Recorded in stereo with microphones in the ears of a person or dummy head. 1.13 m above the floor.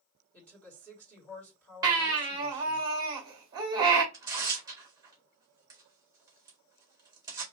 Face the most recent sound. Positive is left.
turn(degrees=-15)  # may be behind; listen again after turning